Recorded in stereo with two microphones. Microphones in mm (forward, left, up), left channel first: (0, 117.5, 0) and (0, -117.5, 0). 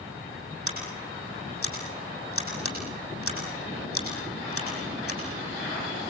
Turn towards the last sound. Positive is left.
turn(degrees=65)  # may be behind; listen again after turning